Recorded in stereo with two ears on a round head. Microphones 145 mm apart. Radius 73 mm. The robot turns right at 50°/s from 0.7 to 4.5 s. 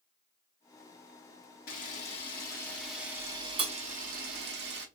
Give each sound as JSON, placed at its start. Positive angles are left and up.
{"t": 1.7, "sound": "a camera shutter", "side_deg": 60, "distance_m": 1.0}